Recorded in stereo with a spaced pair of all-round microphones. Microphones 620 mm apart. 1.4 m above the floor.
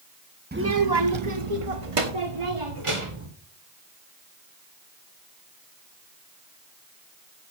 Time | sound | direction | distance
0.5 | a child speaking | 15° right (ahead or behind) | 0.9 m